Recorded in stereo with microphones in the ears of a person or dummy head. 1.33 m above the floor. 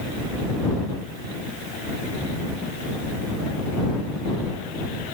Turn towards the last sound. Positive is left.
No sound to turn to.